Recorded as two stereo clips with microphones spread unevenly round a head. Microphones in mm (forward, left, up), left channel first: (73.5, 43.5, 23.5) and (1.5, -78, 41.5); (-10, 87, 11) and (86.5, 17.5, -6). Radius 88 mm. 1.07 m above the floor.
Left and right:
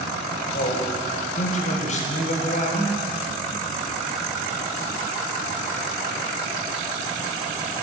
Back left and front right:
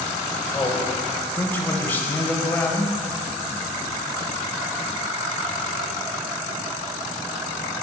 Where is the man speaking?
65° left, 1.0 m.